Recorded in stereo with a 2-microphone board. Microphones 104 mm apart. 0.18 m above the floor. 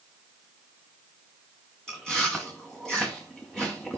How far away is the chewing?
About 3.5 m.